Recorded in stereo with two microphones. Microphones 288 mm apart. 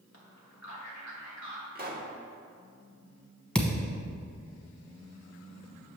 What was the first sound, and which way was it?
A man speaking, 55° left (ahead or behind).